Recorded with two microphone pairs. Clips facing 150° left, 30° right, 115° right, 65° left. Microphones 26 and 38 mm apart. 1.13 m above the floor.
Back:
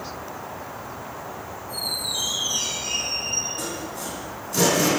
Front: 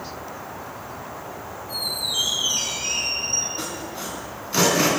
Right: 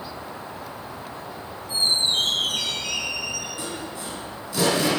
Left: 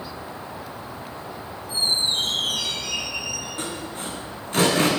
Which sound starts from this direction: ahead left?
Sawing, at 3.6 s.